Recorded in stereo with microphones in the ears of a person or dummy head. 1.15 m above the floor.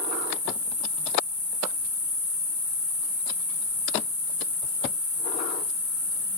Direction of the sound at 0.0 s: 10° right (ahead or behind).